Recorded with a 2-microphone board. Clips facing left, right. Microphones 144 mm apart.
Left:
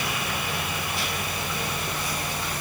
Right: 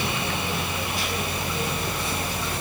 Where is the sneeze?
I don't hear a sneeze.